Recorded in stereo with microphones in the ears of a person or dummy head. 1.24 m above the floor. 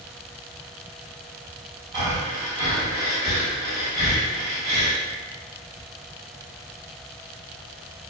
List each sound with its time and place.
1.9 s breathing: 30° right (ahead or behind), 1.4 m